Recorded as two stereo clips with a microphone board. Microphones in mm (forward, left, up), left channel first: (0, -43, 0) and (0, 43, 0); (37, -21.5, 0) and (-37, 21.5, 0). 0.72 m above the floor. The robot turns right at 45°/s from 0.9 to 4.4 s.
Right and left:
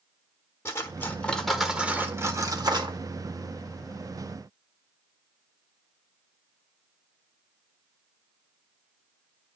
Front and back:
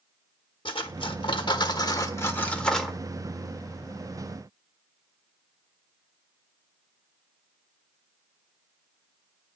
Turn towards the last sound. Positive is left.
turn(degrees=130)